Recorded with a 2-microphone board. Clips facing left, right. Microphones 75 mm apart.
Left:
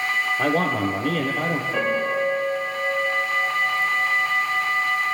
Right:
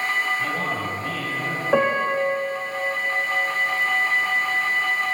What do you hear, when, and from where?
0.4 s a man speaking: 60° left (ahead or behind), 4.5 m; by 1.6 s 50° left (ahead or behind), 4.5 m
1.7 s a piano: 85° right, 9 m